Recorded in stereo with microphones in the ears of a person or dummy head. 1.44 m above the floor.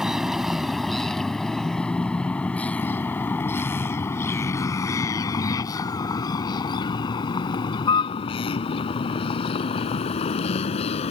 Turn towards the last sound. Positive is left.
turn(degrees=40)  # may be behind; listen again after turning